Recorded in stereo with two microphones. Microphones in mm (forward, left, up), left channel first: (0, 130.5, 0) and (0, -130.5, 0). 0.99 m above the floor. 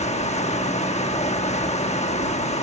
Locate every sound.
0.0 s running water: 25° left (ahead or behind), 1.1 m